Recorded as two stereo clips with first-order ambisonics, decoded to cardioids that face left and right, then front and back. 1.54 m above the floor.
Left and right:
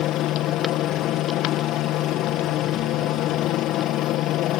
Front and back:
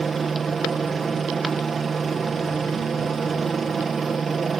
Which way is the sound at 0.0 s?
110° left.